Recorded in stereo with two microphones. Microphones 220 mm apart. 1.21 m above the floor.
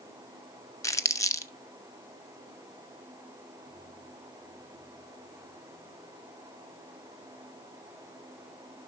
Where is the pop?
I don't hear a pop.